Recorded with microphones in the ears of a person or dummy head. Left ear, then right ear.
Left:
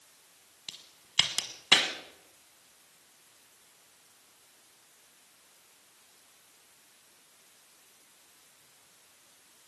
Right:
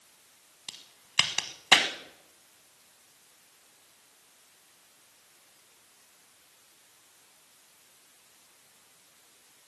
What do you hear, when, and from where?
0.7 s a crack: 25° right (ahead or behind), 1.3 m